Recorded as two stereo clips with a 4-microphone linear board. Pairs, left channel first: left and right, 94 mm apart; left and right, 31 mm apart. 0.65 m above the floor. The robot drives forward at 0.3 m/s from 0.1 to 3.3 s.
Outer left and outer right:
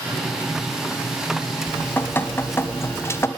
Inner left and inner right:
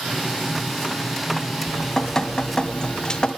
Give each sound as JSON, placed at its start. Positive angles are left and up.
{"t": 1.7, "sound": "dripping", "side_deg": 20, "distance_m": 1.7}